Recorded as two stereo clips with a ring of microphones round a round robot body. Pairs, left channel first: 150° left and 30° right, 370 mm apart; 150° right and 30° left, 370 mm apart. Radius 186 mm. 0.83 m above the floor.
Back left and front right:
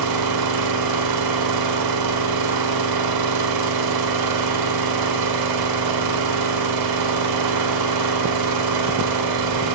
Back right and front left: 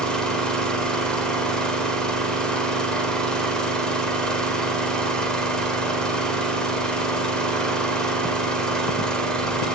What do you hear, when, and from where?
0.0 s an engine running: 60° right, 3 m